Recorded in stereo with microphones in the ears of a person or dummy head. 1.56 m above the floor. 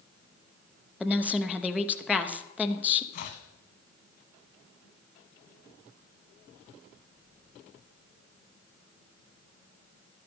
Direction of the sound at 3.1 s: 40° left (ahead or behind).